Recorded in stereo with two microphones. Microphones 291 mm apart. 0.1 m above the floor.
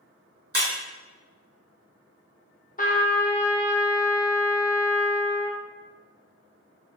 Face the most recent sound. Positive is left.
turn(degrees=30)  # may be behind; listen again after turning